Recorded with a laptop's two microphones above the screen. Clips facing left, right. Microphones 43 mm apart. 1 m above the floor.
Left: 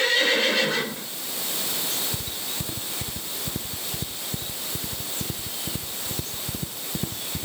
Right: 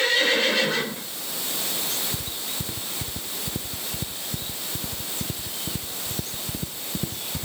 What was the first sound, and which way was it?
Only background noise.